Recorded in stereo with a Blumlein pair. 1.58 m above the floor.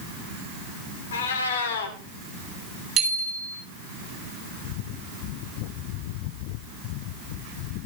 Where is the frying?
No frying in this recording.